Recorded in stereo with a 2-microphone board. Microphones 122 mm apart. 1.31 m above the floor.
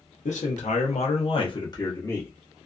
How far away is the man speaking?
About 0.9 m.